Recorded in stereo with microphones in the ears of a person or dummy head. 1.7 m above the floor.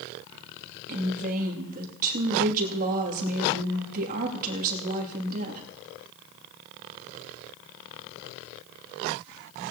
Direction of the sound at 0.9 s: 50° right (ahead or behind).